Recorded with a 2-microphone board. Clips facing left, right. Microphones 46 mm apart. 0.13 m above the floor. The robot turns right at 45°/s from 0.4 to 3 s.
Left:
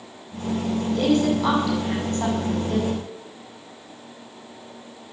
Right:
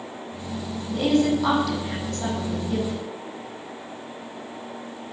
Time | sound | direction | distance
0.9 | a woman speaking | 30° right (ahead or behind) | 6.5 m